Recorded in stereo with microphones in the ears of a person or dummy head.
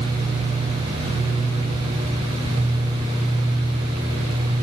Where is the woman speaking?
I don't hear a woman speaking.